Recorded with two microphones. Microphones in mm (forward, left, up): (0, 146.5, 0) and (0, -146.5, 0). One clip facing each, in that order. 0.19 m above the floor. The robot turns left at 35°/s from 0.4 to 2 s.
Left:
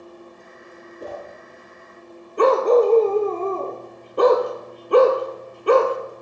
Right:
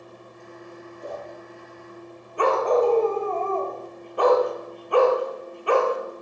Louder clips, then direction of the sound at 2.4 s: Left 5 dB; 45° left (ahead or behind).